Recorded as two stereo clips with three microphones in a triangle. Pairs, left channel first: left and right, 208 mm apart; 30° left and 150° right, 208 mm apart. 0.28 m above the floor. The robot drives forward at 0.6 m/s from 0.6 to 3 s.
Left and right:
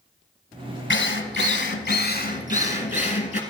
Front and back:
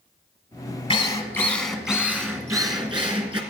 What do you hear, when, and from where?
0.9 s a drill: 90° left, 1.0 m; by 3.4 s 145° left, 1.6 m